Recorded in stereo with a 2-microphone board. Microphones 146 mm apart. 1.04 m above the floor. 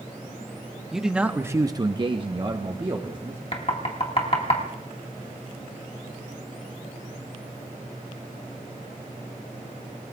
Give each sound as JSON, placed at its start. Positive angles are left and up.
{"t": 0.9, "sound": "a man speaking", "side_deg": 0, "distance_m": 1.2}
{"t": 3.5, "sound": "knocking", "side_deg": 45, "distance_m": 2.0}